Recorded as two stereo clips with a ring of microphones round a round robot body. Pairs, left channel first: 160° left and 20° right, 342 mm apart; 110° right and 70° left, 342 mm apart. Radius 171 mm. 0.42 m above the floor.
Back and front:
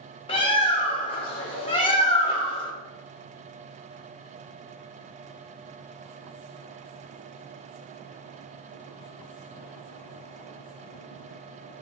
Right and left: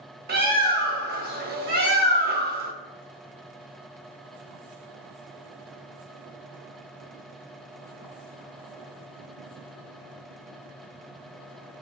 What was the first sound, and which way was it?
A bird, 95° left.